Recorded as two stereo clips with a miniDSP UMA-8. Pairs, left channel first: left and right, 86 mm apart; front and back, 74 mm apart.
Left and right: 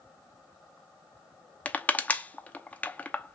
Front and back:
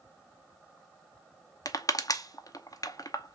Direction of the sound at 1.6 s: 20° left.